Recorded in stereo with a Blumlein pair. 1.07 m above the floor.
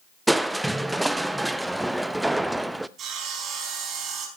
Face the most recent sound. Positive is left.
turn(degrees=-25)